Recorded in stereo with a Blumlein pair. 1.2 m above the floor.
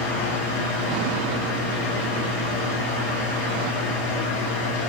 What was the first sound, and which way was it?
A fan, 55° left.